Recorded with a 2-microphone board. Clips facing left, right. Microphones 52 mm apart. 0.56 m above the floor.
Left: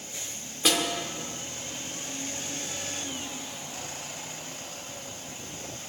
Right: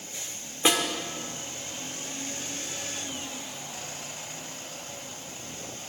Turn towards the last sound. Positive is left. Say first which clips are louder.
# right 1 dB
turn(degrees=-25)  # may be behind; listen again after turning